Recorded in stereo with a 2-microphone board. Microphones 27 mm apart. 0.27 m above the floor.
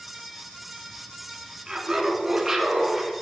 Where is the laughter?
20° right (ahead or behind), 2.5 m; by 3.2 s centre (ahead or behind), 2.5 m.